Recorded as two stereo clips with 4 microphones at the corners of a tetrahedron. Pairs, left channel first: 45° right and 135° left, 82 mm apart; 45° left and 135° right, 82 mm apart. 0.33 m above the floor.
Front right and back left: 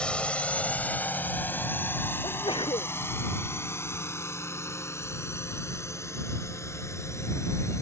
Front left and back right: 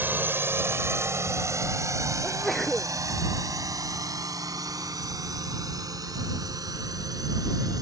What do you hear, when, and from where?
0.0 s a drone: 105° right; by 7.8 s 95° right
2.2 s a sneeze: 45° right